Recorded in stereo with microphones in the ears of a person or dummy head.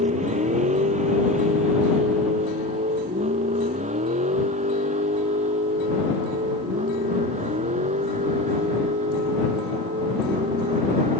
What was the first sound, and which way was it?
A vehicle, 30° right (ahead or behind).